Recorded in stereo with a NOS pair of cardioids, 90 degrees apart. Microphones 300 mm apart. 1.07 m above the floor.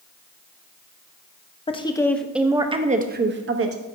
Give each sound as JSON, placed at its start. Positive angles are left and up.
{"t": 1.7, "sound": "a woman speaking", "azimuth_deg": 20, "distance_m": 1.0}